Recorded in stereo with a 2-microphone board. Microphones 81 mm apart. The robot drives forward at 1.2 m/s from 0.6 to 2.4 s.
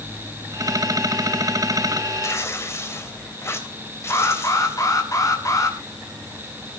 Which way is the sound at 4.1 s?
45° left (ahead or behind).